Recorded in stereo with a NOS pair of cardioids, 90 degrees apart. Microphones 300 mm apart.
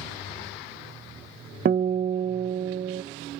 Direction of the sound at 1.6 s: 30° right.